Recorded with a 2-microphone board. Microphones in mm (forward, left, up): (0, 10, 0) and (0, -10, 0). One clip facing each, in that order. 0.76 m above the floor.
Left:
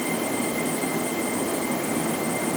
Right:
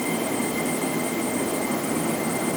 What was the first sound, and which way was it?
Only background noise.